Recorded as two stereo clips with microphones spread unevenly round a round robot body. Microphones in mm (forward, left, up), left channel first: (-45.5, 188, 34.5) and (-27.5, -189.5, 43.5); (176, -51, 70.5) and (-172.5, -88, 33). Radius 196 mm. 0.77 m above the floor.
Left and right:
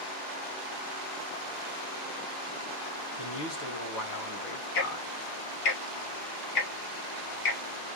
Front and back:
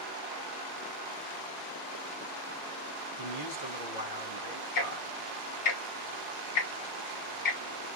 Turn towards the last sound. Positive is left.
turn(degrees=50)